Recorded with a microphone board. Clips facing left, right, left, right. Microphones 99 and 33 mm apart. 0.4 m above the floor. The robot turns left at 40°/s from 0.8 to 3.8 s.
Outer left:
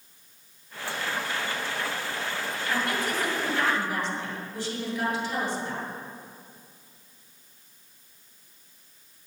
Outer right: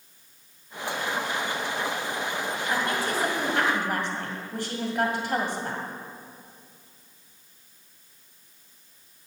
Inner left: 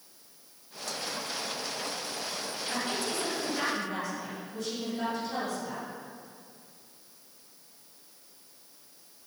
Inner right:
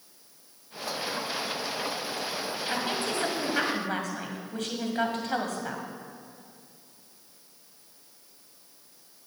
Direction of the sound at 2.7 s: 30° right.